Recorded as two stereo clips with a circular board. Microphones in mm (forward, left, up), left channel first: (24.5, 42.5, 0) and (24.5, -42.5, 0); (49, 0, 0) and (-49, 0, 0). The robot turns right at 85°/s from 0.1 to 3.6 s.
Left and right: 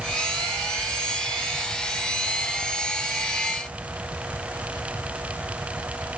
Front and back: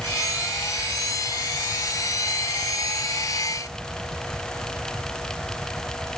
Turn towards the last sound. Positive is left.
No sound to turn to.